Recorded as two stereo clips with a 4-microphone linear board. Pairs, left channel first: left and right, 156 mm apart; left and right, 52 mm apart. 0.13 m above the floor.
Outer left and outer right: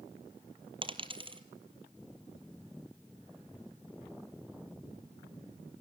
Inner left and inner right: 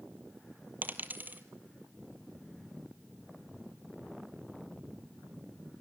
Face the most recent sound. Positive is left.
turn(degrees=-35)  # may be behind; listen again after turning